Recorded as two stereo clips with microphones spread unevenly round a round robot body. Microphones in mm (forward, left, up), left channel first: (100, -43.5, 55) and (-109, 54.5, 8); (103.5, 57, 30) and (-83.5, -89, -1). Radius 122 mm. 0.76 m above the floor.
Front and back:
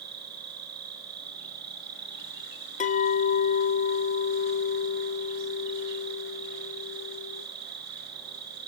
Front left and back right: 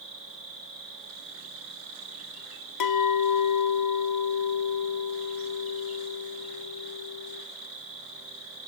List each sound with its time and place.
0.0 s an insect: 155° left, 6 m
2.8 s a clink: 35° left, 1.0 m